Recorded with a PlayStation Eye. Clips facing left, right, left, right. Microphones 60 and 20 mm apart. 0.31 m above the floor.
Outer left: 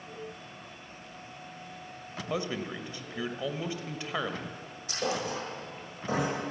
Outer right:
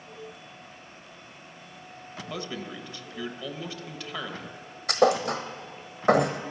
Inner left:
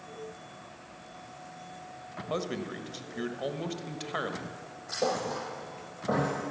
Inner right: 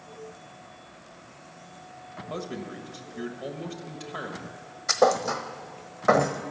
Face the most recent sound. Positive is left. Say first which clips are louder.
# outer right 10 dB, inner right 8 dB
turn(degrees=-70)  # may be behind; listen again after turning